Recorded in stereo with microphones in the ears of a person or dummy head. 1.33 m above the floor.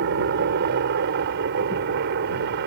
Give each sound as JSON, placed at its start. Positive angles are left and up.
{"t": 0.0, "sound": "a helicopter", "side_deg": -55}